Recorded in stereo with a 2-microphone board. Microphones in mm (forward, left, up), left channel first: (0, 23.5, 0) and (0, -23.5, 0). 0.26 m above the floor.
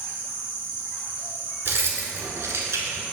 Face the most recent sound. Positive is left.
turn(degrees=-75)  # may be behind; listen again after turning